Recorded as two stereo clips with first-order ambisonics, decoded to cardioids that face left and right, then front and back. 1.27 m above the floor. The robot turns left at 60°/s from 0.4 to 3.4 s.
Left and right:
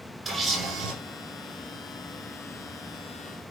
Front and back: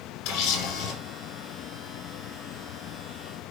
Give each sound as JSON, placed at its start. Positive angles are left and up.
{"t": 0.2, "sound": "a camera shutter", "azimuth_deg": -20, "distance_m": 5.5}